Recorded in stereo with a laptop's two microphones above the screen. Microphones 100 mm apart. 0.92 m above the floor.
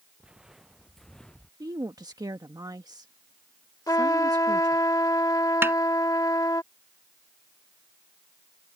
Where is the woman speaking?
40° right (ahead or behind).